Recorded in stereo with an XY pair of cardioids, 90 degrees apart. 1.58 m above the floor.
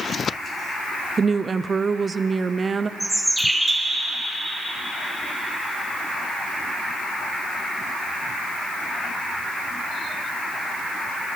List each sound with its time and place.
1.2 s a woman speaking: 35° right, 0.6 m
3.0 s a bird: 5° left, 2.5 m